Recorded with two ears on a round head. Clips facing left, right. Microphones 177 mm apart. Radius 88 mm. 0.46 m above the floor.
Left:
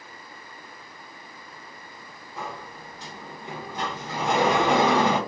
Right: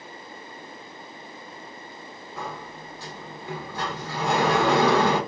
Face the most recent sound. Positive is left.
turn(degrees=15)  # may be behind; listen again after turning